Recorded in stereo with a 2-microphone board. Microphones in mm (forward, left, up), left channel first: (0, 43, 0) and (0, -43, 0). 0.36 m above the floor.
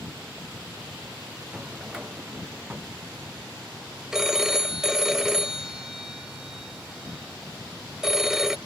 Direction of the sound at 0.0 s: 15° right (ahead or behind).